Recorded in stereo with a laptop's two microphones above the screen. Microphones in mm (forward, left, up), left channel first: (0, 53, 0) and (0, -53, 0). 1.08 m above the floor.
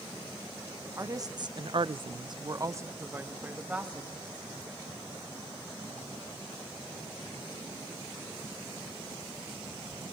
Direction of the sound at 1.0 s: 30° right (ahead or behind).